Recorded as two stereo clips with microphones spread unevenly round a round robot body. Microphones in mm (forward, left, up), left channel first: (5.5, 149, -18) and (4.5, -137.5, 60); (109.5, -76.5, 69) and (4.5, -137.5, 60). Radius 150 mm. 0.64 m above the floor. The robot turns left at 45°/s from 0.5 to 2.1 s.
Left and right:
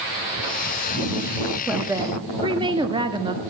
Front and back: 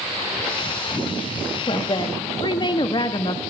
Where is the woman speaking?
15° left, 1.1 m; by 3.4 s 5° right, 1.1 m.